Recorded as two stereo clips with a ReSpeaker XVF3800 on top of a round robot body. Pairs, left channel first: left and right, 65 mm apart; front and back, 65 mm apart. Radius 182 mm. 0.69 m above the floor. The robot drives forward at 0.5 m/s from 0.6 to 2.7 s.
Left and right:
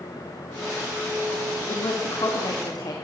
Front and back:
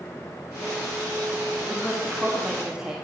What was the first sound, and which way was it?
A woman speaking, 85° left.